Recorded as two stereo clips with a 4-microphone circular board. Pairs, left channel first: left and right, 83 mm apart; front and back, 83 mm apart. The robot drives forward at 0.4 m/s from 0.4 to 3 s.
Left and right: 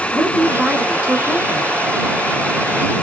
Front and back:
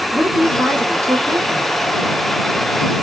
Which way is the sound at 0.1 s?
135° right.